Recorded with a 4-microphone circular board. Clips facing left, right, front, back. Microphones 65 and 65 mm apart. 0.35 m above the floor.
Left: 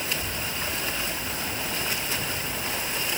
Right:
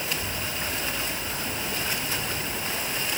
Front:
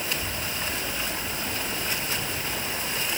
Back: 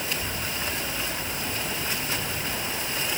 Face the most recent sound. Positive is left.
No sound to turn to.